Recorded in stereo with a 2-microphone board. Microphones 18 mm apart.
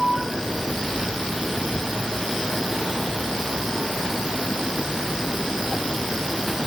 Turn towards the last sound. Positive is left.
No sound to turn to.